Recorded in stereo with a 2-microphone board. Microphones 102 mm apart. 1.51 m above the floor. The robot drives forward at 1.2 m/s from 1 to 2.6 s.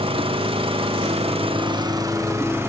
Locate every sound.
0.0 s an engine running: 65° right (ahead or behind), 0.9 m; by 2.7 s 25° right (ahead or behind), 1.8 m